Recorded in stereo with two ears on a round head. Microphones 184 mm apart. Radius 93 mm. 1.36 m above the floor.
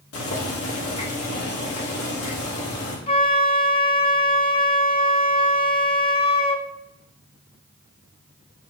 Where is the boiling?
75° left (ahead or behind), 2 m.